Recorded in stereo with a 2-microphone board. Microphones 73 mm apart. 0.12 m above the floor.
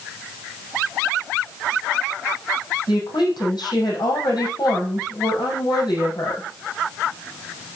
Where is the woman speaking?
70° left (ahead or behind), 5.5 m.